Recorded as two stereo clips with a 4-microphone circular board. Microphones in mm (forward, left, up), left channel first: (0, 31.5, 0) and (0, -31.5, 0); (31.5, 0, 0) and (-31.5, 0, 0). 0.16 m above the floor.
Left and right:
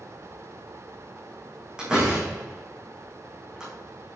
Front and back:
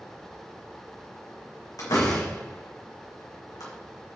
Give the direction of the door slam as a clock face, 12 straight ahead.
12 o'clock.